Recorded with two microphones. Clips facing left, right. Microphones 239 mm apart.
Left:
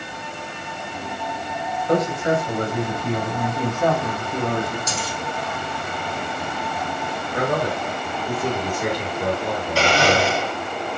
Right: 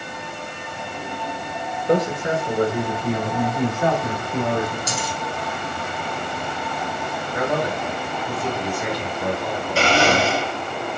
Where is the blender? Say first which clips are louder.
Even; 35° right (ahead or behind), 1.7 m.